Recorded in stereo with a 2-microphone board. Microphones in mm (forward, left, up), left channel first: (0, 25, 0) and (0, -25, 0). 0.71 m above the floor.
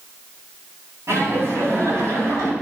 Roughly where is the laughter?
Right.